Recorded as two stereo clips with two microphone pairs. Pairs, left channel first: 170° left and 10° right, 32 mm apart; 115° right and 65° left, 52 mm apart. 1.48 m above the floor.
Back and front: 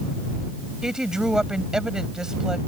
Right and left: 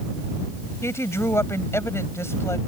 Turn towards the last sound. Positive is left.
turn(degrees=-80)